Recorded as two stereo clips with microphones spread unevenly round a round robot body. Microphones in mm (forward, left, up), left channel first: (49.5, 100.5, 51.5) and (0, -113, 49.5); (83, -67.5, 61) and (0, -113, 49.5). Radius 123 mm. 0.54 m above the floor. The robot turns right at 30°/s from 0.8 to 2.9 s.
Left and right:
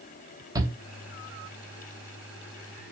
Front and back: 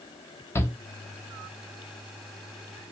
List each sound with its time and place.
0.6 s a shout: 35° right, 1.1 m